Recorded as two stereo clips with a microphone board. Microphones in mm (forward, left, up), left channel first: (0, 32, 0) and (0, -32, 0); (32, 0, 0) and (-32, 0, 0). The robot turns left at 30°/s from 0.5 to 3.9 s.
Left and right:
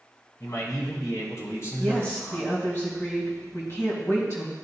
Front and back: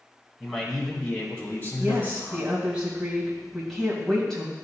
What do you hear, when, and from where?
0.4 s a man speaking: 90° left, 2 m; by 2.7 s 25° left, 2 m
1.8 s a woman speaking: 145° left, 2.0 m; by 4.5 s 80° left, 2.0 m